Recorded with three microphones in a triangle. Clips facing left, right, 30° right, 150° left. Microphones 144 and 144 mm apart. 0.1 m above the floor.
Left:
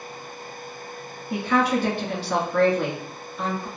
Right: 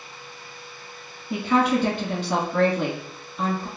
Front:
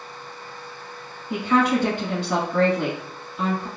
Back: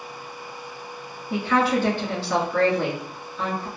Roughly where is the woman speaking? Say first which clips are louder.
Right 1 dB, front 1 dB; ahead right.